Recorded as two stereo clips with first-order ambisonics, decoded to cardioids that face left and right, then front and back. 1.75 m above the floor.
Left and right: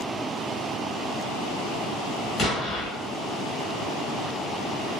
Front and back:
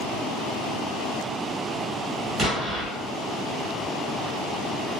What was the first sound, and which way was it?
An explosion, 135° left.